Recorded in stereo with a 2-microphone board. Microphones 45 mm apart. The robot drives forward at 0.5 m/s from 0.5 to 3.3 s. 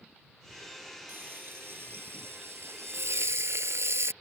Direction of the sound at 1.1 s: 50° right (ahead or behind).